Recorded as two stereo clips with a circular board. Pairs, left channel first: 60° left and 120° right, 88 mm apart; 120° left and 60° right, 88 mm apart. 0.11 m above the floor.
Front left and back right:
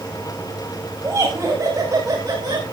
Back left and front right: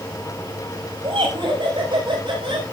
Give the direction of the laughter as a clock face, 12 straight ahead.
2 o'clock.